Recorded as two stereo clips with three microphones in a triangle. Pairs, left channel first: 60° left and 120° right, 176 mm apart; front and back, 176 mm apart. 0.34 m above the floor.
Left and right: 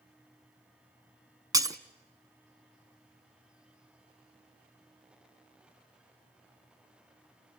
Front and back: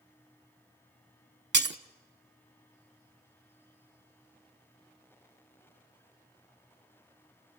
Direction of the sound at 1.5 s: 170° left.